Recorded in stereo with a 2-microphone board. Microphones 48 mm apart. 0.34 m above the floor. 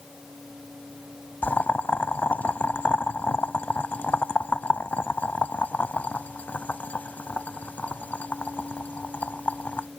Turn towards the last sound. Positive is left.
turn(degrees=35)  # may be behind; listen again after turning